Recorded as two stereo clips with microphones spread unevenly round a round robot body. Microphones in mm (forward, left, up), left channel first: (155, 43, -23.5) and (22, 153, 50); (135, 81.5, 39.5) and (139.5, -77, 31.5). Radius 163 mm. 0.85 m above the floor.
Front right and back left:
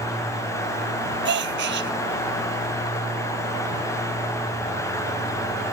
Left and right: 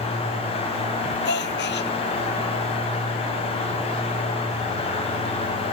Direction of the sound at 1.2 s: 140° left.